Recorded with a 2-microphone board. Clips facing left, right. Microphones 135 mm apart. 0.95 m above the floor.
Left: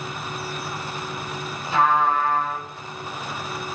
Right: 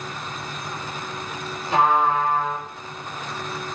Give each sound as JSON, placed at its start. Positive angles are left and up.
{"t": 1.7, "sound": "a trumpet", "side_deg": -65, "distance_m": 3.5}